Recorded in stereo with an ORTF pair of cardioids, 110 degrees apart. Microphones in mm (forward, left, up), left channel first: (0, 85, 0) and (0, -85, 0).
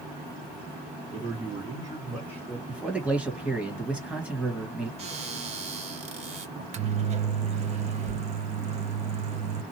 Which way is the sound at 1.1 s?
40° right.